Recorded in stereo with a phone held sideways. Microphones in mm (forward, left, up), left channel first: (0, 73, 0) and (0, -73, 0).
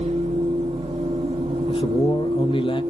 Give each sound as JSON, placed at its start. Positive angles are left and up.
{"t": 0.0, "sound": "a machine running", "side_deg": -45, "distance_m": 2.5}
{"t": 1.7, "sound": "a man speaking", "side_deg": 35, "distance_m": 0.6}